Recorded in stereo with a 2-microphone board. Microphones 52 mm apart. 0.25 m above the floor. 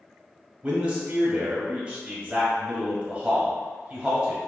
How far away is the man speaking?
About 1.0 m.